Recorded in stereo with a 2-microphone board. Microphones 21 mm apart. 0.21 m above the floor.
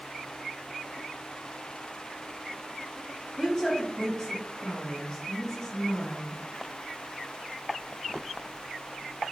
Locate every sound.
3.4 s a woman speaking: 15° left (ahead or behind), 1.2 m